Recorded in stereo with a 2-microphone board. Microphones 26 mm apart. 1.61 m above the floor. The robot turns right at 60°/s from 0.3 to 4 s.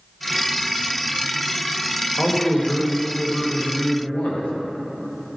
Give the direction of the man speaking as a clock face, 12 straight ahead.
12 o'clock.